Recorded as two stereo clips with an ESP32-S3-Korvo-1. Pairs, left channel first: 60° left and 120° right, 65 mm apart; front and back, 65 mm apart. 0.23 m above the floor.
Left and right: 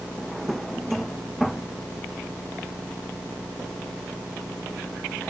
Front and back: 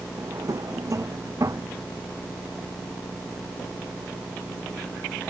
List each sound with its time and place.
0.2 s a drawer: 150° left